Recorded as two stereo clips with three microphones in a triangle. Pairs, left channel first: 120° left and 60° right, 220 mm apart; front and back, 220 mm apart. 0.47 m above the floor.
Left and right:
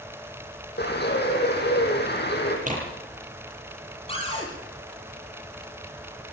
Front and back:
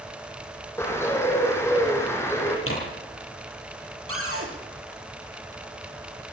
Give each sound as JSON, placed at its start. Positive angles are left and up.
{"t": 0.8, "sound": "a bird", "azimuth_deg": 80, "distance_m": 6.0}
{"t": 2.7, "sound": "tearing paper", "azimuth_deg": -5, "distance_m": 9.5}
{"t": 4.1, "sound": "a cupboard door", "azimuth_deg": -175, "distance_m": 8.5}